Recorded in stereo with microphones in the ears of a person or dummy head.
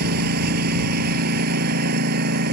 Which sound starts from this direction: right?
A lawn mower, at 0.0 s.